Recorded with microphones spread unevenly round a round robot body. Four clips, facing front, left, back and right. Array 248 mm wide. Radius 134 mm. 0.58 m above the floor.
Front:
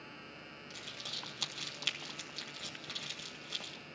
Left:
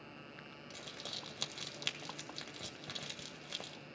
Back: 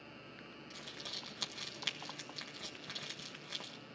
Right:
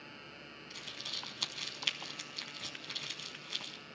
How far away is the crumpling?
About 1.6 m.